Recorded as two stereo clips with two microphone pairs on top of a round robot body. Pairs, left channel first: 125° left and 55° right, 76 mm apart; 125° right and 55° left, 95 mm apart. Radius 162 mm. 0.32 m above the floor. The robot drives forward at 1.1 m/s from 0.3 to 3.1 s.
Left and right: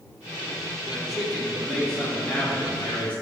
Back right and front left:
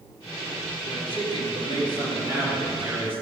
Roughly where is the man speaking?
Behind right.